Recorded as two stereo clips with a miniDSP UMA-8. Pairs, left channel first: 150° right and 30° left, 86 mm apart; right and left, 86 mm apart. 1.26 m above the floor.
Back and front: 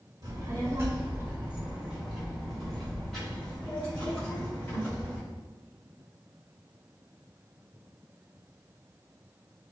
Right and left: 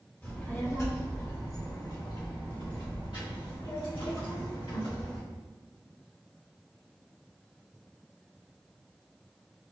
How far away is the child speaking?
About 1.4 m.